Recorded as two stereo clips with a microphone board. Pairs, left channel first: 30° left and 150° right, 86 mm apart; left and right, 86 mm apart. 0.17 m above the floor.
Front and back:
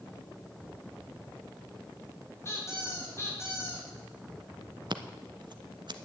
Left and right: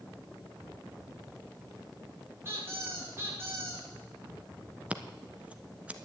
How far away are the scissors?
About 0.7 m.